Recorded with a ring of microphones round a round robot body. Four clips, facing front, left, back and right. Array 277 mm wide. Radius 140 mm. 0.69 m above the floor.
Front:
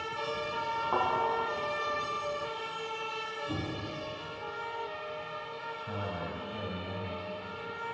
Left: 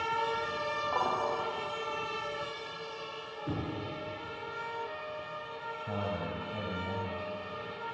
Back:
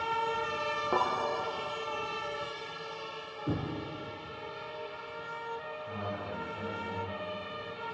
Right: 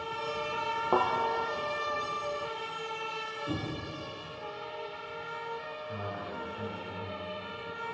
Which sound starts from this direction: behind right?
A thud, at 0.9 s.